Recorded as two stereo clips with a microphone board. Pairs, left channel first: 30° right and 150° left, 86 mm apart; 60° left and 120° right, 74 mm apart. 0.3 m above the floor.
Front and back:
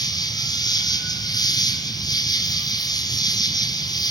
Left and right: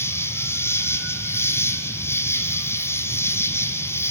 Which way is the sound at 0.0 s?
5° left.